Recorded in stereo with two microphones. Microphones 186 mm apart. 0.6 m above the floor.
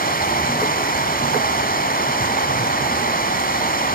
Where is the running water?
55° left (ahead or behind), 2 m.